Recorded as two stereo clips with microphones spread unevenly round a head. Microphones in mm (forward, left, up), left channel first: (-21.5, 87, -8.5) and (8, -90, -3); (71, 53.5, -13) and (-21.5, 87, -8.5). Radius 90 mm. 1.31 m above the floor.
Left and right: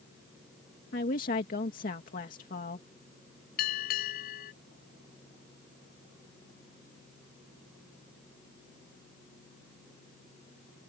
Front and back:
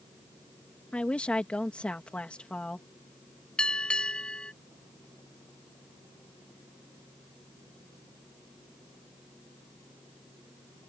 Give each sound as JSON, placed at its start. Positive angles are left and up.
{"t": 0.9, "sound": "a woman speaking", "azimuth_deg": 55}
{"t": 3.6, "sound": "a bell", "azimuth_deg": 60}